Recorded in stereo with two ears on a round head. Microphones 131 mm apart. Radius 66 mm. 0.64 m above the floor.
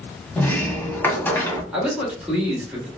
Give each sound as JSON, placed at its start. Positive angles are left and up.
{"t": 0.4, "sound": "a sliding door", "side_deg": 15, "distance_m": 0.6}
{"t": 1.7, "sound": "a man speaking", "side_deg": -10, "distance_m": 1.1}